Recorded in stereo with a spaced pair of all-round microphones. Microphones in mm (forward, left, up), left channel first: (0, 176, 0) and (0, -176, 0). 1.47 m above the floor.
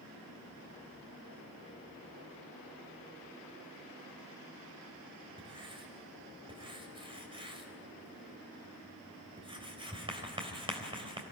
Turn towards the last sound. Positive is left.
turn(degrees=-15)  # may be behind; listen again after turning